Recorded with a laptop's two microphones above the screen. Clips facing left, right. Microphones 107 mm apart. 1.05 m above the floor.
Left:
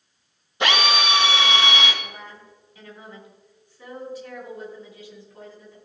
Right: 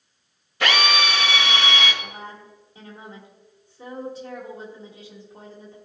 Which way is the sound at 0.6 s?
25° left (ahead or behind).